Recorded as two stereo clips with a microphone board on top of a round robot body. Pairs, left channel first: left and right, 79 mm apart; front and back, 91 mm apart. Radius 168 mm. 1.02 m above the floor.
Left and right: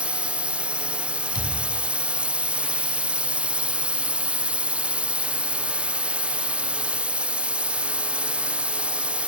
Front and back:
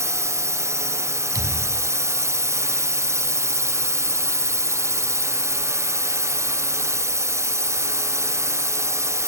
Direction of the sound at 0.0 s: 155° right.